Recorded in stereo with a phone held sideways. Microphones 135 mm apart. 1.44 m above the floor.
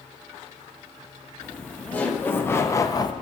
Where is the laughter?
5° left (ahead or behind), 2 m; by 3.1 s 35° left (ahead or behind), 0.8 m.